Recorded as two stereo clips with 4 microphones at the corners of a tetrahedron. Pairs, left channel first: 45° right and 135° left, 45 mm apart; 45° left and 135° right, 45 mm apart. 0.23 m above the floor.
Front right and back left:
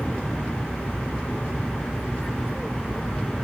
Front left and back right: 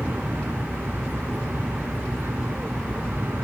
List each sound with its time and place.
0.0 s an aircraft: 120° right; by 3.4 s 125° right